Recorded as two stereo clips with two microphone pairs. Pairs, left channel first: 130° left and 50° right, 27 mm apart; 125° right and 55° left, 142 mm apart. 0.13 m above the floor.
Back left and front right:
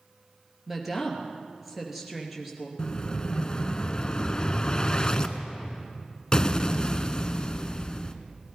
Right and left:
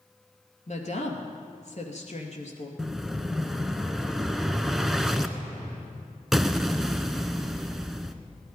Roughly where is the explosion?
Behind left.